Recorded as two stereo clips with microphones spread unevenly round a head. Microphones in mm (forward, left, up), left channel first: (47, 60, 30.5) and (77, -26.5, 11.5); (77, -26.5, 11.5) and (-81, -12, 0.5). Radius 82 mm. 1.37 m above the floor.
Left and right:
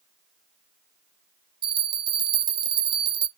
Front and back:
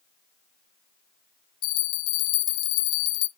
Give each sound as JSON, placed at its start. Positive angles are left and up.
{"t": 1.6, "sound": "a bell", "azimuth_deg": -35, "distance_m": 0.6}